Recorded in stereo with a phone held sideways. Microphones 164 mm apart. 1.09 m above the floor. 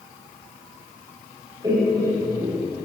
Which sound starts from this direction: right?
Laughter, at 1.6 s.